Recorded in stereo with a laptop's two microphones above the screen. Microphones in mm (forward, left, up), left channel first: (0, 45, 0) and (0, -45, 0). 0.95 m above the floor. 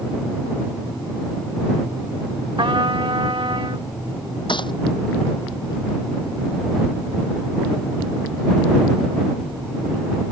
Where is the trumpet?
75° right (ahead or behind).